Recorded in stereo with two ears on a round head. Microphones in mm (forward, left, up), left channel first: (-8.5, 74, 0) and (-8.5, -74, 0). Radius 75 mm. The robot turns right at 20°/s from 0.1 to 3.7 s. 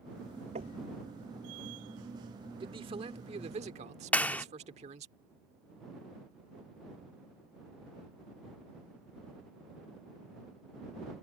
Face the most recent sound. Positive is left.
turn(degrees=10)  # may be behind; listen again after turning